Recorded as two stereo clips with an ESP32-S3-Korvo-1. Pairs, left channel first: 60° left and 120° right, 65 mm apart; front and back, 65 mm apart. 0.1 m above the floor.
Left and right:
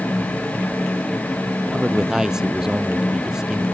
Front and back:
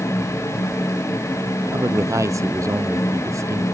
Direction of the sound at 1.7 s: 160° left.